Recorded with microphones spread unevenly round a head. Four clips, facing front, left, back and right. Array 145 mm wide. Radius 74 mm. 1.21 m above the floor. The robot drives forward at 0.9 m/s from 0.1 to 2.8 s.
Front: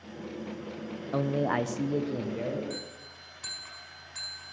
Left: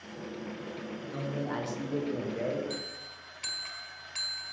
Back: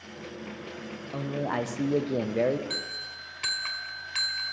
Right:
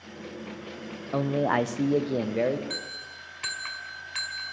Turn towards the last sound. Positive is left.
turn(degrees=-140)